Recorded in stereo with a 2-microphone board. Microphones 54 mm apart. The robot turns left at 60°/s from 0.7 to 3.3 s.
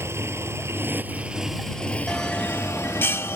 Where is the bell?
175° left; by 3.4 s 100° left.